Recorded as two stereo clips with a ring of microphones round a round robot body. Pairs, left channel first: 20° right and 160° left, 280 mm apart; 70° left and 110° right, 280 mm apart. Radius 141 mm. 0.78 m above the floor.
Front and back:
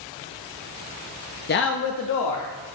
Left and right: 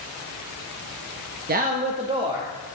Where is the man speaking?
65° right, 0.6 m; by 2.8 s 35° right, 1.1 m.